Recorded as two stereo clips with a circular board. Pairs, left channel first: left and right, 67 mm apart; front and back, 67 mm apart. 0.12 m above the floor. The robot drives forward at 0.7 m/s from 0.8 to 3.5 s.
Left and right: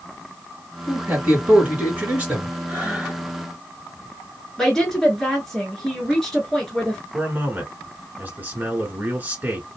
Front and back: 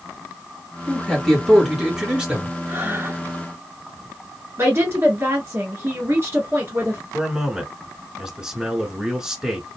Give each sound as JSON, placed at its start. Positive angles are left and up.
{"t": 0.9, "sound": "a man speaking", "azimuth_deg": -50, "distance_m": 1.7}
{"t": 2.7, "sound": "breathing", "azimuth_deg": -145, "distance_m": 2.5}
{"t": 4.6, "sound": "a woman speaking", "azimuth_deg": 170, "distance_m": 1.3}
{"t": 7.1, "sound": "a man speaking", "azimuth_deg": -110, "distance_m": 1.2}